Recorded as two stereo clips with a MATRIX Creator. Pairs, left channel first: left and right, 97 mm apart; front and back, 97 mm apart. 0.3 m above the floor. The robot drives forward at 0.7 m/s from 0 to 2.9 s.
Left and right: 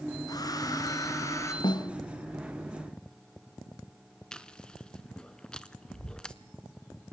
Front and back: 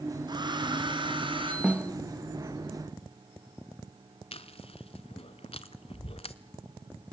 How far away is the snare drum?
About 1.5 m.